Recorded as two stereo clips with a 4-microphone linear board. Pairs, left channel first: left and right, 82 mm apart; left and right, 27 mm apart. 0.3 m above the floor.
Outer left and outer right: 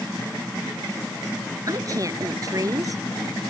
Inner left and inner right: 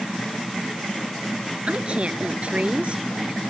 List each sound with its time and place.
1.7 s a woman speaking: 45° right (ahead or behind)